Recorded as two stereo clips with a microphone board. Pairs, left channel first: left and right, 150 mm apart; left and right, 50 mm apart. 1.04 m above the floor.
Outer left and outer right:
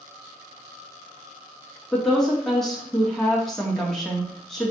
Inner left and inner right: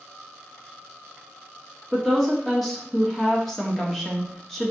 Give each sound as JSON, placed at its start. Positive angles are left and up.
{"t": 1.9, "sound": "a woman speaking", "side_deg": 0, "distance_m": 2.0}